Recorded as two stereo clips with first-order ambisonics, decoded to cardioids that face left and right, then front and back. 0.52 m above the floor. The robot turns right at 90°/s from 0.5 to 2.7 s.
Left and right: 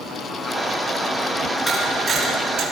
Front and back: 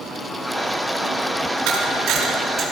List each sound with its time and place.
1.7 s a camera shutter: 170° left, 5 m; by 2.6 s 105° right, 5 m